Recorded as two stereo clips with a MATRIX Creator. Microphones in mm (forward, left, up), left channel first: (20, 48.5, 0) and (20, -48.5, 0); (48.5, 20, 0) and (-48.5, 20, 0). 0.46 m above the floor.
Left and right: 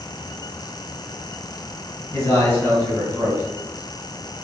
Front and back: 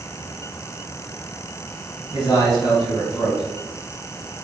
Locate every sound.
2.1 s a man speaking: 35° left, 1.8 m